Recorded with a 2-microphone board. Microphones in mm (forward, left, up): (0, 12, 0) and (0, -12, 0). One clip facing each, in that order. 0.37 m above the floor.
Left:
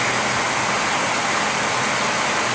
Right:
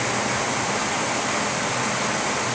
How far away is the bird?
I don't hear a bird.